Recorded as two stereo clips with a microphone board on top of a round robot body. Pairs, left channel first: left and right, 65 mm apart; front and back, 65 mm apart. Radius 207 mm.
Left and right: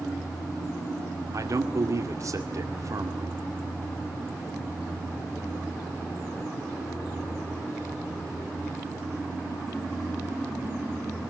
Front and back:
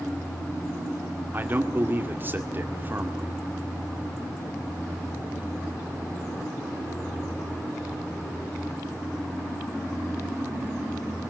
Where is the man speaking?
125° right, 2 m.